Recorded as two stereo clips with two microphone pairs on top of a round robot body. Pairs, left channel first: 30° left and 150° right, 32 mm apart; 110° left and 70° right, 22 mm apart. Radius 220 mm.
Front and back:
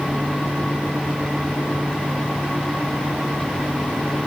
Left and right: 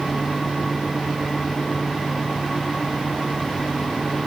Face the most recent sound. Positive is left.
No sound to turn to.